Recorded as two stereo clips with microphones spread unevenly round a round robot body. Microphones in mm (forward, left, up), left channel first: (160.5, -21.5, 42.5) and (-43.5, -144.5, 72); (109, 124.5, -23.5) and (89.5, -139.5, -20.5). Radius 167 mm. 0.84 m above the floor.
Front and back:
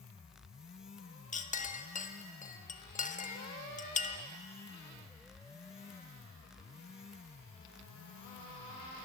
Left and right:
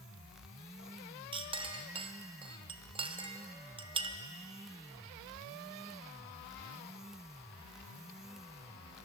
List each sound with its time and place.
1.3 s a clink: 25° right, 0.5 m